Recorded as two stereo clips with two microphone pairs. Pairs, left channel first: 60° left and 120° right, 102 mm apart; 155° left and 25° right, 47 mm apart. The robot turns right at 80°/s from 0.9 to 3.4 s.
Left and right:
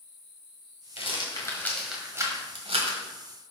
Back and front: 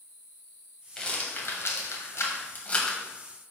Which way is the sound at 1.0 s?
75° left.